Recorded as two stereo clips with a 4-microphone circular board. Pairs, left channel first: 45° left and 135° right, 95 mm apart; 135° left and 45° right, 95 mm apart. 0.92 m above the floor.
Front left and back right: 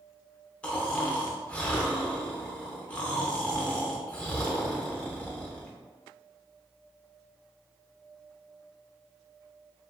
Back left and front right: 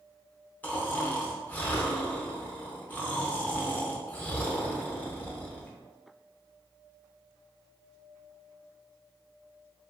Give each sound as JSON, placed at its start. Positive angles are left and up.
{"t": 0.6, "sound": "snoring", "azimuth_deg": 100, "distance_m": 0.5}